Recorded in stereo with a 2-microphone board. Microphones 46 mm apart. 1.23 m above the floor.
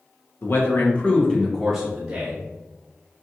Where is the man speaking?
55° left (ahead or behind), 1.0 m; by 2.4 s 25° right (ahead or behind), 1.2 m.